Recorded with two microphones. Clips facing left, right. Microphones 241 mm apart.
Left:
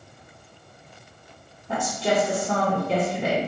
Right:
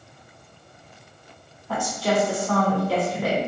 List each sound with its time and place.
1.7 s a woman speaking: 20° left (ahead or behind), 1.0 m